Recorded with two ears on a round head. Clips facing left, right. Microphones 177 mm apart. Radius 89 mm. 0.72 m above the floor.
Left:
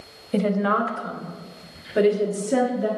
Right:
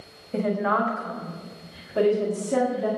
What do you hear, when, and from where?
0.3 s a woman speaking: 45° left (ahead or behind), 1.4 m; by 2.9 s 10° left (ahead or behind), 1.9 m